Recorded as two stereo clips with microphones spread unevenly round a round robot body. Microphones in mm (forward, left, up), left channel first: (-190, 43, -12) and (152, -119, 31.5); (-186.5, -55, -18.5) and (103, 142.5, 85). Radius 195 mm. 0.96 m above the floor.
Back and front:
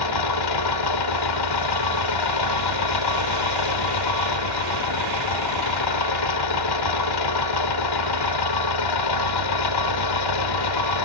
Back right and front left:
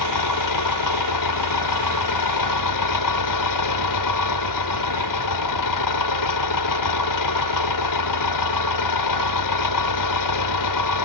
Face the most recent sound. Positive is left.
turn(degrees=180)